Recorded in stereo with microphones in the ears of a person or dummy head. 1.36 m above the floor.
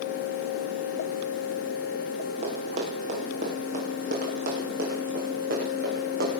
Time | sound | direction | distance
2.4 | running footsteps | 40° right (ahead or behind) | 4 m